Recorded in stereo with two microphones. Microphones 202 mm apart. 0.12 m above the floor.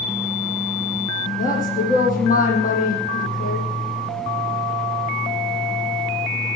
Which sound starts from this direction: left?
A woman speaking, at 1.4 s.